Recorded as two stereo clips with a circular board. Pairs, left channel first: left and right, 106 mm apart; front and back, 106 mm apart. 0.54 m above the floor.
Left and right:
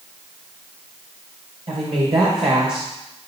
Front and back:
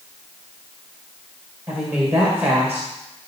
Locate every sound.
1.7 s a woman speaking: 105° right, 2 m